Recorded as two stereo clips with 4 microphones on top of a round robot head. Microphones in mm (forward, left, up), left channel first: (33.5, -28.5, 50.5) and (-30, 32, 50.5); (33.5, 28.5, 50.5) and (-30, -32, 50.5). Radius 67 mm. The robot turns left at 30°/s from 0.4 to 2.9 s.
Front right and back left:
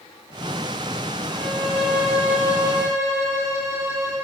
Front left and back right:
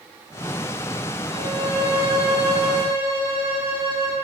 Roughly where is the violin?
Behind right.